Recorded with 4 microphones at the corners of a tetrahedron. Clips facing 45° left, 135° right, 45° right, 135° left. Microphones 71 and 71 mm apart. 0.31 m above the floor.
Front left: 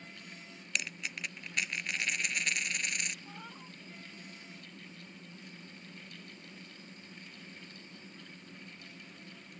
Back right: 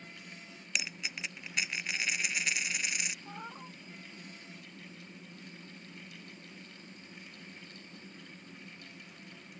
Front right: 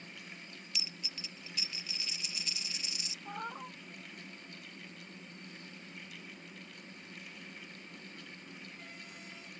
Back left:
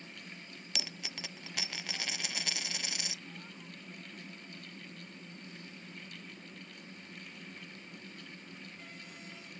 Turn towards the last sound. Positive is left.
turn(degrees=-70)